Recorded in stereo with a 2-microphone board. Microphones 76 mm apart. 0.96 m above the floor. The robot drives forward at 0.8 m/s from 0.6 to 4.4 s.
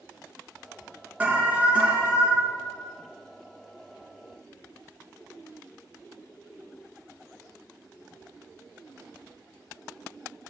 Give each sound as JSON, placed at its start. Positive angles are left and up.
{"t": 1.2, "sound": "an alarm", "side_deg": -20, "distance_m": 1.7}